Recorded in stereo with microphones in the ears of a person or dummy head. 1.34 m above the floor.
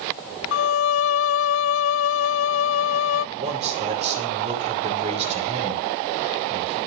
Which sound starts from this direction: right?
A man speaking, at 3.4 s.